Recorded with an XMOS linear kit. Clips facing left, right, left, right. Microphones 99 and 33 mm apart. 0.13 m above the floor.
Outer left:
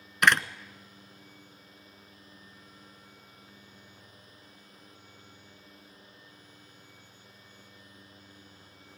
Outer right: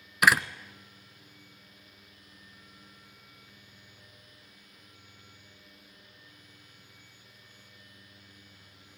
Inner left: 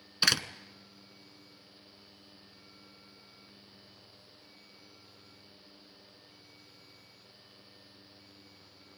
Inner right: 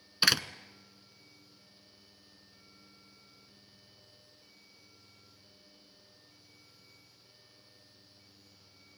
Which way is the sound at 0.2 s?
5° right (ahead or behind).